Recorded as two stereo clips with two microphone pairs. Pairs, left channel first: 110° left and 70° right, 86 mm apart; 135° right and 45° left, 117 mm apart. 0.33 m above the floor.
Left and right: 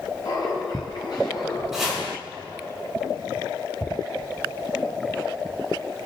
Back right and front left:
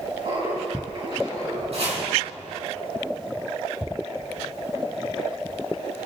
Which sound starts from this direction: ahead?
Chopping, at 1.7 s.